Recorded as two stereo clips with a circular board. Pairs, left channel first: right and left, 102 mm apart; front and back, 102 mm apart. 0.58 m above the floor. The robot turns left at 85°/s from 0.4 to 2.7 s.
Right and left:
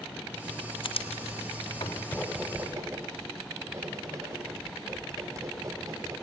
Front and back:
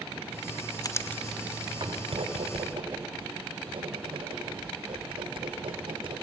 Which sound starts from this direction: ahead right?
Writing, at 0.8 s.